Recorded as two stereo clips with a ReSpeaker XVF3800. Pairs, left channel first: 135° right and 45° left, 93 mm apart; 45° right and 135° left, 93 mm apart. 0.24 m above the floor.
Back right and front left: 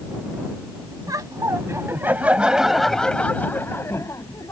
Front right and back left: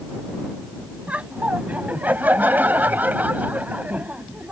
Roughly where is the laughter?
Ahead left.